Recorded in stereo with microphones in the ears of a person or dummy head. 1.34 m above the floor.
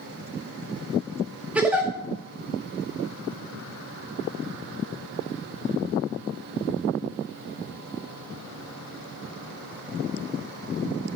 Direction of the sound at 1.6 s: 10° right (ahead or behind).